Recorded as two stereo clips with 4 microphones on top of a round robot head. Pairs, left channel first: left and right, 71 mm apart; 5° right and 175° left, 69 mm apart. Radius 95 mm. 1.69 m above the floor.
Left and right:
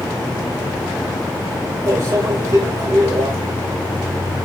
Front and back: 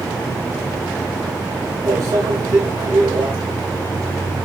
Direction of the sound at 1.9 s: 135° right.